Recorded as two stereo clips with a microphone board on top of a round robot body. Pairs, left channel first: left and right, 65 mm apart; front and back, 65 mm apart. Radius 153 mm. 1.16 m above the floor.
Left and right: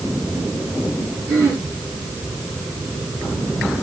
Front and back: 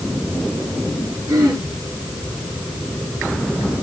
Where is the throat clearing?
135° right, 7.5 m.